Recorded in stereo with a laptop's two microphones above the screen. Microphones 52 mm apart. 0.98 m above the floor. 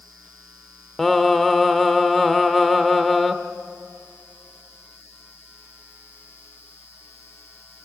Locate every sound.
1.0 s singing: 5° left (ahead or behind), 1.0 m